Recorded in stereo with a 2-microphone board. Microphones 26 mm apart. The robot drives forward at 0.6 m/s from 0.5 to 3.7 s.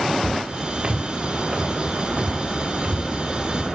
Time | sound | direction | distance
0.2 | footsteps | 35° right (ahead or behind) | 1.2 m